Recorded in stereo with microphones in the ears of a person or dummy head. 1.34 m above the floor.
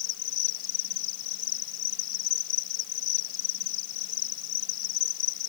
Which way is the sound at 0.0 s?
65° left (ahead or behind).